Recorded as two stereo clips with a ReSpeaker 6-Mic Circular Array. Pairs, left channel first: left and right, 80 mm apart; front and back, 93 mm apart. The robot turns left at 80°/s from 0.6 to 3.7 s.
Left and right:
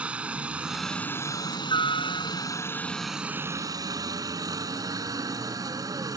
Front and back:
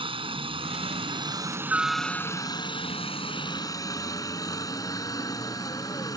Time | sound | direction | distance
0.0 | a helicopter | 165° right | ?